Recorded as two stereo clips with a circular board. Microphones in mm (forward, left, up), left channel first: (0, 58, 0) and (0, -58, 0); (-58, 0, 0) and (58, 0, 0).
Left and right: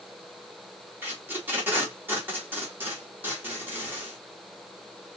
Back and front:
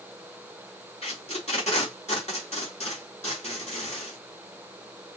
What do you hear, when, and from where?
1.0 s tape being pulled: 160° right, 2 m